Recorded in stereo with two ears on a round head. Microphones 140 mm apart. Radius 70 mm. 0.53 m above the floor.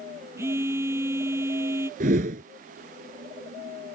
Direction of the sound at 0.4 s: 15° right (ahead or behind).